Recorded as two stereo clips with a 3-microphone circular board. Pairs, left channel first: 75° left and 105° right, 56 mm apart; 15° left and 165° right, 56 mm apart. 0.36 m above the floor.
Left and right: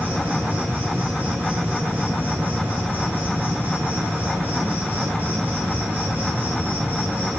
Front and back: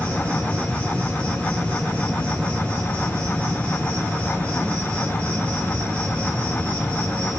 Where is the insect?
50° right, 5 m.